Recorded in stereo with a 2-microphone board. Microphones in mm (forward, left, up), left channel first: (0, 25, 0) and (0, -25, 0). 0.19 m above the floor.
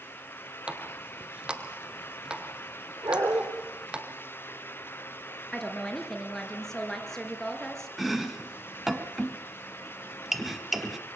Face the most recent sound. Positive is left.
turn(degrees=0)  # may be behind; listen again after turning